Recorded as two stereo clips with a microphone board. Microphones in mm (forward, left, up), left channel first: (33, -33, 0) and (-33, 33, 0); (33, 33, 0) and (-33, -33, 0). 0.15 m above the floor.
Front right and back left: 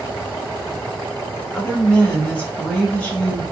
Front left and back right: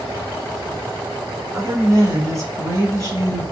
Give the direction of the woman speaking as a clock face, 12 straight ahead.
4 o'clock.